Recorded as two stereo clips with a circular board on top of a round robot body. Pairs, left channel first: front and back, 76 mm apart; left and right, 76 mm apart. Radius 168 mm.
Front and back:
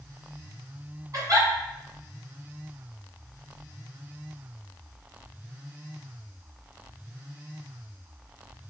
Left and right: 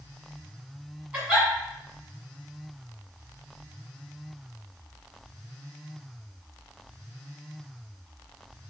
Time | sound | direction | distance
1.1 | a giggle | 160° right | 1.9 m